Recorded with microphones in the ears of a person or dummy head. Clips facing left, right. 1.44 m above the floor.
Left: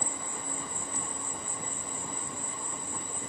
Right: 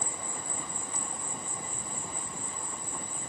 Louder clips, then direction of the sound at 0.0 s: Left 1 dB; 5° right (ahead or behind).